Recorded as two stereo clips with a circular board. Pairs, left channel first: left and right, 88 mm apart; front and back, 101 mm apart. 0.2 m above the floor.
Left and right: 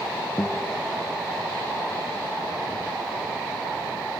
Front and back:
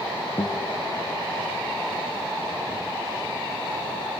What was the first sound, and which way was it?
A guitar, 30° left.